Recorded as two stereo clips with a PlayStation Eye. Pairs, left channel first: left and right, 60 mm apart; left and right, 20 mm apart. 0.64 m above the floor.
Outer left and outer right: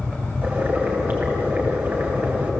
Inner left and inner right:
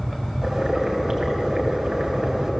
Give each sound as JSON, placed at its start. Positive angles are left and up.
{"t": 0.4, "sound": "boiling", "side_deg": -30, "distance_m": 4.0}